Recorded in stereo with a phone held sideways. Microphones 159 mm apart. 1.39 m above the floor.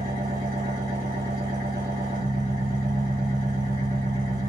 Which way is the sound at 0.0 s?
75° right (ahead or behind).